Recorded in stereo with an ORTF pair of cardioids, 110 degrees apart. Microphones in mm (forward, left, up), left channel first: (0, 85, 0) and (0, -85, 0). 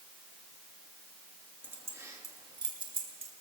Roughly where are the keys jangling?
Ahead.